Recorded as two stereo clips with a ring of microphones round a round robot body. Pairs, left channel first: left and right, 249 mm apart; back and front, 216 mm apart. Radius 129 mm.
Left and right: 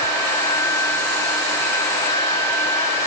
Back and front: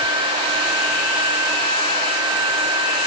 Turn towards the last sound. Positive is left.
No sound to turn to.